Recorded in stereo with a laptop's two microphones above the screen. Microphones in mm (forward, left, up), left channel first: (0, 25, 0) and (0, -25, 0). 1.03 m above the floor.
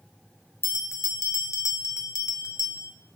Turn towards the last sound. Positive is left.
turn(degrees=70)  # may be behind; listen again after turning